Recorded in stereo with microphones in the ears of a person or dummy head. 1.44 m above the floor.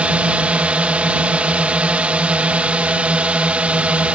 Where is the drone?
5° right (ahead or behind).